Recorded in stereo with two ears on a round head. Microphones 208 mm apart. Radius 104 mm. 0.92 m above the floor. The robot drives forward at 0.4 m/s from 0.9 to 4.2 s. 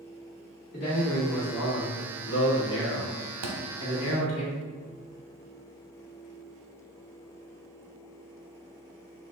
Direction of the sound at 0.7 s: 40° left (ahead or behind).